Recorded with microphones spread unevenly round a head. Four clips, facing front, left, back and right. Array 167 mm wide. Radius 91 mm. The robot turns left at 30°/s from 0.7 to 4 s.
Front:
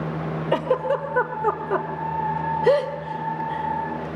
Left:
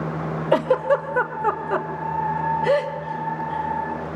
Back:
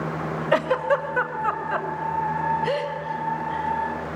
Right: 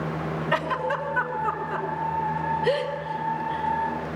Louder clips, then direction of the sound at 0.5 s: Left 9 dB, back 1 dB; 65° left.